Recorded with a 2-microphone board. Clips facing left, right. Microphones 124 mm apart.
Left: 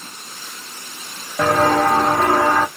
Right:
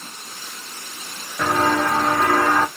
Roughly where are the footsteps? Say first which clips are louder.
Left 4 dB; left.